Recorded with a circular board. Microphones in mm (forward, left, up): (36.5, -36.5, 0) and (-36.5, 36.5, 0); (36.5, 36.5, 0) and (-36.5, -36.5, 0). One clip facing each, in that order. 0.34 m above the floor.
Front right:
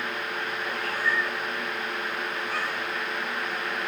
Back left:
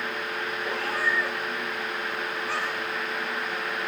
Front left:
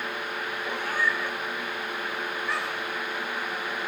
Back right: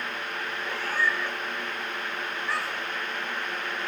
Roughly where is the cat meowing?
Behind left.